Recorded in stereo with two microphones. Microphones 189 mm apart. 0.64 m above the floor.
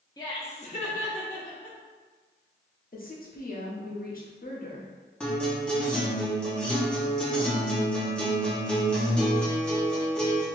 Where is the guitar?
5° left (ahead or behind), 1.0 m.